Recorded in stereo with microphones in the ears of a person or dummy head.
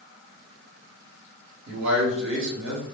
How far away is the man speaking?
About 1.8 m.